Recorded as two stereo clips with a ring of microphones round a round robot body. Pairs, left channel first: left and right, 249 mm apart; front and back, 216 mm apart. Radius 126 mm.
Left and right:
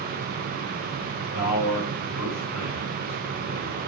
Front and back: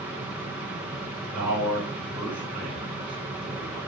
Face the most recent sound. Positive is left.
turn(degrees=95)